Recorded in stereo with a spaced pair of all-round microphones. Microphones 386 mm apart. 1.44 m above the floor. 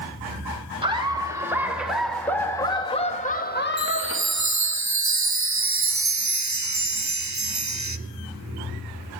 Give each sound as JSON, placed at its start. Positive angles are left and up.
{"t": 0.8, "sound": "laughter", "side_deg": -15, "distance_m": 3.0}
{"t": 3.8, "sound": "a chime", "side_deg": -45, "distance_m": 0.7}